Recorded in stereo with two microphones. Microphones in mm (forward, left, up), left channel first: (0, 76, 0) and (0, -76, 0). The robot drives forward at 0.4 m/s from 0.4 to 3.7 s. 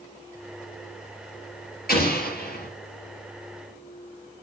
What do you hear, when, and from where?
1.9 s an explosion: 80° left, 3.5 m; by 2.7 s 85° left, 3.5 m